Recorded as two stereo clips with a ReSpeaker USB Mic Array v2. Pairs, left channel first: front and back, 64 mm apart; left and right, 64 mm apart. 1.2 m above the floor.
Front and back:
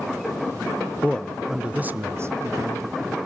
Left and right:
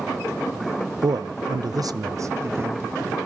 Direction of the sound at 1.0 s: 70° right.